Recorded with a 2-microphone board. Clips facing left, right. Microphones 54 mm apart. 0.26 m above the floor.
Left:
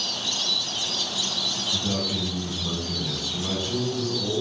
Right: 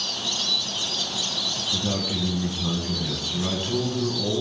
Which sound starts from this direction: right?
A man speaking, at 1.7 s.